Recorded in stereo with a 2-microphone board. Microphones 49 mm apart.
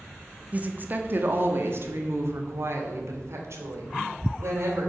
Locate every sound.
0.5 s a woman speaking: 30° right (ahead or behind), 1.1 m; by 4.9 s 65° right (ahead or behind), 3.5 m